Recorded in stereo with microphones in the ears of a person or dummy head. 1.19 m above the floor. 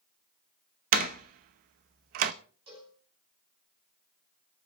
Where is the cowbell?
30° right (ahead or behind), 4 m.